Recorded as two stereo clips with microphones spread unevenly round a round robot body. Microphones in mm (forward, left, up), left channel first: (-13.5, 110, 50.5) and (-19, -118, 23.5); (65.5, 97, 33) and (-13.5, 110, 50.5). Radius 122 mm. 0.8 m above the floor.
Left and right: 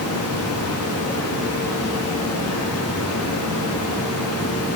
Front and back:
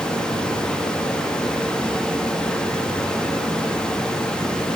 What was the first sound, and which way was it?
Running water, 65° left.